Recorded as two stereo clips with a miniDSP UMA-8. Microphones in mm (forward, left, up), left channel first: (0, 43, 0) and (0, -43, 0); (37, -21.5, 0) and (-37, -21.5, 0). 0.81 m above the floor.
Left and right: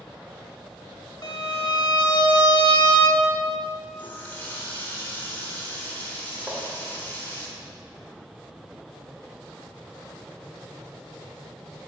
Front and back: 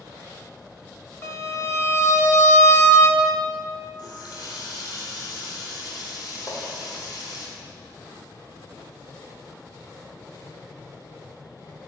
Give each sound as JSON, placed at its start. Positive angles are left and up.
{"t": 1.2, "sound": "a violin", "azimuth_deg": 50, "distance_m": 0.8}
{"t": 4.0, "sound": "a running tap", "azimuth_deg": 25, "distance_m": 1.8}
{"t": 6.5, "sound": "tapping", "azimuth_deg": -20, "distance_m": 2.5}